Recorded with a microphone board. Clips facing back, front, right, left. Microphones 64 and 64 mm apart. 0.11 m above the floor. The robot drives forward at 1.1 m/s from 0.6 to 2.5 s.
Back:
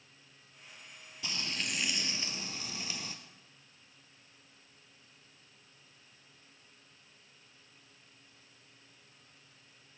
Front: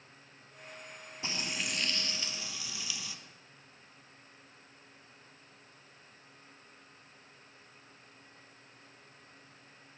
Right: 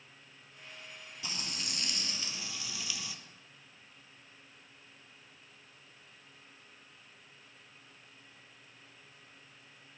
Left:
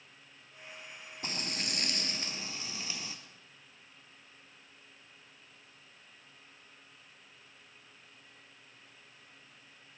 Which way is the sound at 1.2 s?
55° left.